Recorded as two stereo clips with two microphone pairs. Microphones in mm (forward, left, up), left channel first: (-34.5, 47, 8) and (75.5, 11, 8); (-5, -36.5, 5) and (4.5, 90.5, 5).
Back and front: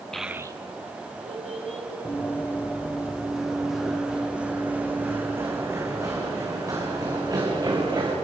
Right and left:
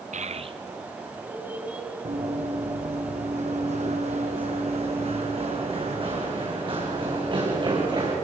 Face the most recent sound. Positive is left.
turn(degrees=35)